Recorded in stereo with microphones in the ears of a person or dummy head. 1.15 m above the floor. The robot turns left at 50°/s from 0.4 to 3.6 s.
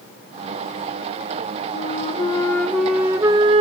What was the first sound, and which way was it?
A flute, 50° left.